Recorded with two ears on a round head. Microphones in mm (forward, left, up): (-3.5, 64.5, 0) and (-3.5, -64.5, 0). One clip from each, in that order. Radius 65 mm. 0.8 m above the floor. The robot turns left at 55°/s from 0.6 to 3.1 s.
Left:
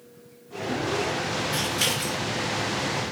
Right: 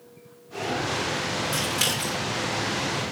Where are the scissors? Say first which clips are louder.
Even; 40° right (ahead or behind), 2.5 m; by 2.2 s 5° right (ahead or behind), 2.5 m.